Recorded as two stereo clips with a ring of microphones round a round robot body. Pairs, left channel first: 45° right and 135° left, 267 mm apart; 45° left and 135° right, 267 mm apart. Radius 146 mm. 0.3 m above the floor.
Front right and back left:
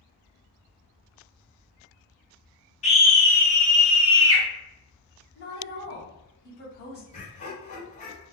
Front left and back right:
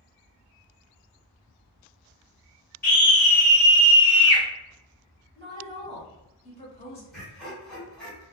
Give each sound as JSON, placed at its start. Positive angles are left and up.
{"t": 2.8, "sound": "a scream", "azimuth_deg": 10, "distance_m": 1.8}
{"t": 5.3, "sound": "a woman speaking", "azimuth_deg": -10, "distance_m": 1.9}
{"t": 7.1, "sound": "laughter", "azimuth_deg": -40, "distance_m": 1.6}